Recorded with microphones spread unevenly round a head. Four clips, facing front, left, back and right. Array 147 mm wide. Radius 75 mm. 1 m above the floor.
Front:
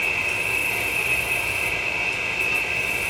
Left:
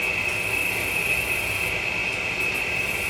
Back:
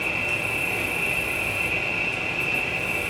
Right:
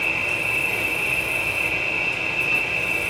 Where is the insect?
150° right, 1.2 m.